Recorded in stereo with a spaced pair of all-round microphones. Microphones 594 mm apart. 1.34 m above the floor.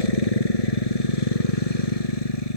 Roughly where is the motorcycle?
Left.